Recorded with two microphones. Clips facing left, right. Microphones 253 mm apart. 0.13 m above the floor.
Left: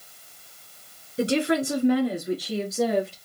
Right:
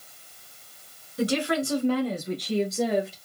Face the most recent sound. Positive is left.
turn(degrees=0)  # may be behind; listen again after turning